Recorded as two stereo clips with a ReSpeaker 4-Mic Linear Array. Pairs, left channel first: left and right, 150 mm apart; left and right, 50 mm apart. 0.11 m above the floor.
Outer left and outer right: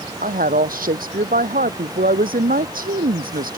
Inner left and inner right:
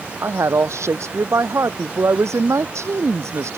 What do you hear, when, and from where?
0.2 s a woman speaking: 70° right (ahead or behind)